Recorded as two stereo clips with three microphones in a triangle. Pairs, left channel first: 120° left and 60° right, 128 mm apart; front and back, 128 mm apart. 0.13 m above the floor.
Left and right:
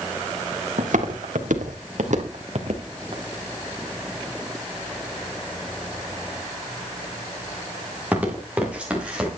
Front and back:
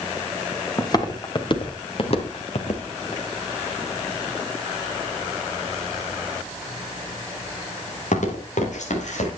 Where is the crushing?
No crushing in this recording.